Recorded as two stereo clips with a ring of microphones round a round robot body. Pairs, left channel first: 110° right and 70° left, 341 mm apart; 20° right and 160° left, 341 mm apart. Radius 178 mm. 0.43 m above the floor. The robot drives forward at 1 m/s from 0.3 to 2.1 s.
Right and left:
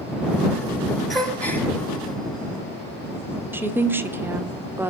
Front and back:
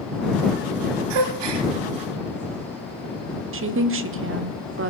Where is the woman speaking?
150° left, 1.2 m.